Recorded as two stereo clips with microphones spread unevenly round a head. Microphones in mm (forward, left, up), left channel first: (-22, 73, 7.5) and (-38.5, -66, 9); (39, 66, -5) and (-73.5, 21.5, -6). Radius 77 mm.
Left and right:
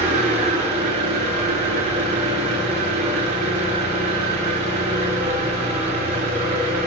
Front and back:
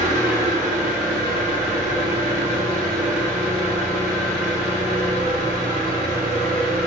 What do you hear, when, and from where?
0.0 s an engine running: 130° right, 5.5 m